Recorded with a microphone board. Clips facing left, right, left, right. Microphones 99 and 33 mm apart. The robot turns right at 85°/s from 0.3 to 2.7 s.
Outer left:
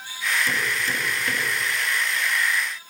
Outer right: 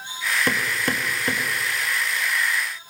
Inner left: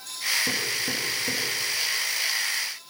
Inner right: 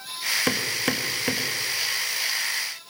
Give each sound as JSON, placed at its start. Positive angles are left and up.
{"t": 0.5, "sound": "hammering", "side_deg": -70, "distance_m": 1.7}